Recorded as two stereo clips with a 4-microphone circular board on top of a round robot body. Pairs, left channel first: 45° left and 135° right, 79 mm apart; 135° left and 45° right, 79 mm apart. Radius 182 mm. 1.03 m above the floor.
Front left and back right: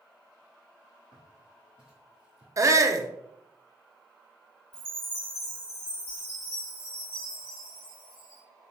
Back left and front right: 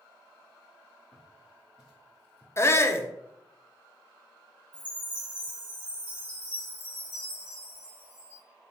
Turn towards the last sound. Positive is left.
turn(degrees=-20)